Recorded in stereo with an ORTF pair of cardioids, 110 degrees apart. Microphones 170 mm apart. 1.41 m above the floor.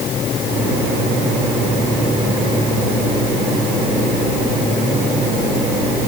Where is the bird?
No bird in this recording.